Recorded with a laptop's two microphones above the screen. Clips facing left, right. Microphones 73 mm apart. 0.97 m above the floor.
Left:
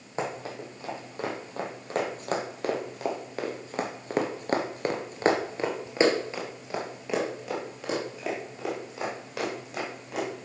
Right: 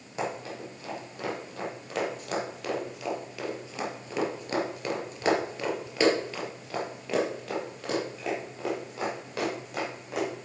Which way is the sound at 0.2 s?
30° left (ahead or behind).